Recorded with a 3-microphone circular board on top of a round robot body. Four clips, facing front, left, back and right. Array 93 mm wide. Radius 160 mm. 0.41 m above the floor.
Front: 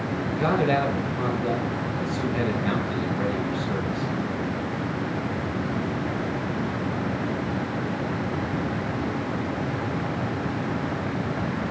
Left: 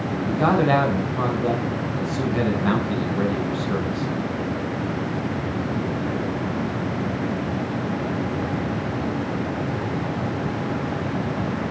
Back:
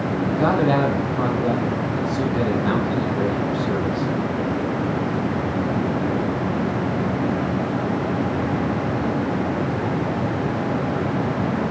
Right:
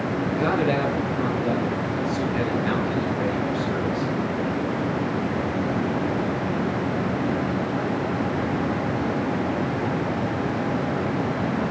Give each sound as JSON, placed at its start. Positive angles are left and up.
{"t": 0.3, "sound": "a man speaking", "azimuth_deg": 125, "distance_m": 6.5}